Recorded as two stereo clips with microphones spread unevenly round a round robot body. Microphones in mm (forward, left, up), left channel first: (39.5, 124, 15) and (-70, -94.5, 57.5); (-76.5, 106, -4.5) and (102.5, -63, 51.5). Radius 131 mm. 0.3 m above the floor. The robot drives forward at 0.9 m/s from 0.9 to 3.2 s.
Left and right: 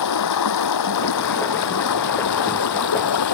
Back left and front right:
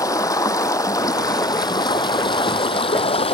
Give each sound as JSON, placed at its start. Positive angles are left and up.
{"t": 0.0, "sound": "running water", "azimuth_deg": 60}